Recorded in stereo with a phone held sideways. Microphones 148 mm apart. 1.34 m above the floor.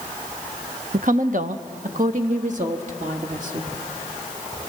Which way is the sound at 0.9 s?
65° right (ahead or behind).